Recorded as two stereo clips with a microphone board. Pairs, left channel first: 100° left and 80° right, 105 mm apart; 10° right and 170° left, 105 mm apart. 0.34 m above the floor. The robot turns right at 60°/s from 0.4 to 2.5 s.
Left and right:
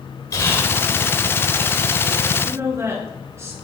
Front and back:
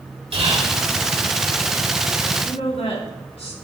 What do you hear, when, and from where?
0.3 s whispering: 155° left, 4.5 m; by 0.8 s 175° left, 4.5 m
2.5 s a woman speaking: 20° right, 3.5 m